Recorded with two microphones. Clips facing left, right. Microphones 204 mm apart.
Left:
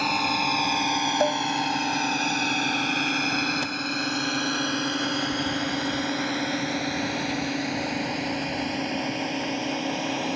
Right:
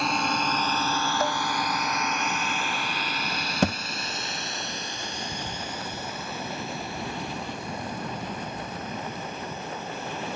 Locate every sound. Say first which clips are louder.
0.0 s a drone: even; centre (ahead or behind); by 10.4 s 80° left
1.2 s dishes clattering: left 7 dB; 30° left (ahead or behind)
3.6 s a thud: right 7 dB; 75° right (ahead or behind)